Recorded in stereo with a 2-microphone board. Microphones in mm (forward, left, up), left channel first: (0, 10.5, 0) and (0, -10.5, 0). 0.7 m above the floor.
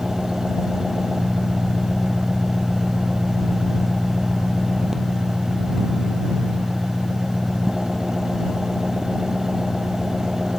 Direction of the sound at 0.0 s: 30° right (ahead or behind).